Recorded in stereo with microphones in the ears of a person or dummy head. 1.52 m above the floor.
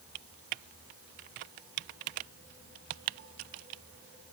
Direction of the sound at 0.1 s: 45° right (ahead or behind).